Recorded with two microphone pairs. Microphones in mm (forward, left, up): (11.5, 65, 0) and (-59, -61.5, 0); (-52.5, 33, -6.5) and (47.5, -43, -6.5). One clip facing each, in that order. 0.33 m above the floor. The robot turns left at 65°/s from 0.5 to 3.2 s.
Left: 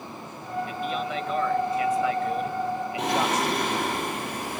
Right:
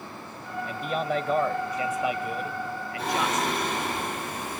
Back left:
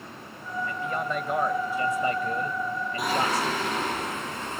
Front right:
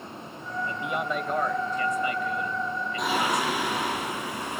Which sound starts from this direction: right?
A man speaking, at 0.7 s.